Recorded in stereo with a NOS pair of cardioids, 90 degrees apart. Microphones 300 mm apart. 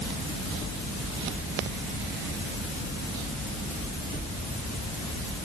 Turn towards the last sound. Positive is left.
No sound to turn to.